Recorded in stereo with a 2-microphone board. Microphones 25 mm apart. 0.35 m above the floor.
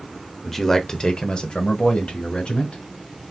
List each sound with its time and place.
0.4 s a man speaking: centre (ahead or behind), 0.9 m; by 2.8 s 55° left (ahead or behind), 2.5 m